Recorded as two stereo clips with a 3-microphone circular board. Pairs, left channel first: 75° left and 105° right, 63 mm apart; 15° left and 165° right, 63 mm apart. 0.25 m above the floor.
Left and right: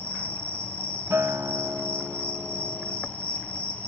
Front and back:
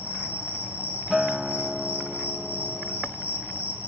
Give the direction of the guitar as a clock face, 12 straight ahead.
3 o'clock.